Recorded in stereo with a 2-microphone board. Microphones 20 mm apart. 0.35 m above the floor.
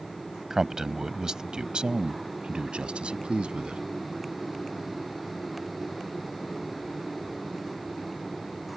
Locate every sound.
0.5 s a man speaking: 20° right (ahead or behind); by 3.8 s 70° right (ahead or behind)